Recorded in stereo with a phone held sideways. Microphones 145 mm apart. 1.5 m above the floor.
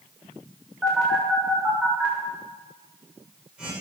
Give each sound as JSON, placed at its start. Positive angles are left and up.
{"t": 0.8, "sound": "a phone buzzing", "side_deg": -5, "distance_m": 7.0}